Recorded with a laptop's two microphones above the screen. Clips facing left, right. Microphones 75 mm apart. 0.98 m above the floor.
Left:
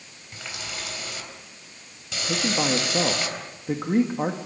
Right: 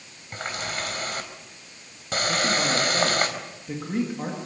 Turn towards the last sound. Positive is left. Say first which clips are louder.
# left 1 dB
turn(degrees=35)  # may be behind; listen again after turning